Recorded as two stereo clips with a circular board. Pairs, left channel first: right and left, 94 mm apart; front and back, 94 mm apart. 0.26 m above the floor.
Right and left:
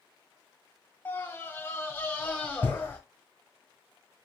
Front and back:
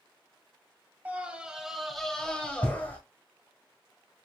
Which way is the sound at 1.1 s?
130° right.